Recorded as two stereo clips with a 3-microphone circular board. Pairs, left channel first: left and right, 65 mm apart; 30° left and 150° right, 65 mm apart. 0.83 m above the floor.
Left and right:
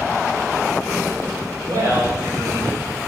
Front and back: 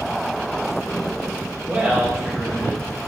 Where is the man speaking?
85° right, 2.5 m; by 3.1 s 25° right, 2 m.